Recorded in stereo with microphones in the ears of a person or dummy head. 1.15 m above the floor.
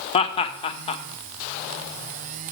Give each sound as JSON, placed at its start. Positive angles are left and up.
{"t": 0.1, "sound": "laughter", "side_deg": 25, "distance_m": 0.7}